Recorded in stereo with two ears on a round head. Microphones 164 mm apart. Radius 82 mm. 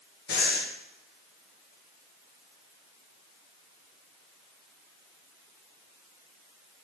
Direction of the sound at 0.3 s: 60° left (ahead or behind).